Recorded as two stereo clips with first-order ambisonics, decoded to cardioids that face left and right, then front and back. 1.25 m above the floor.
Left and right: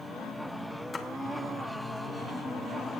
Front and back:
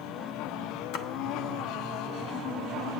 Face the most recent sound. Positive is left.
turn(degrees=15)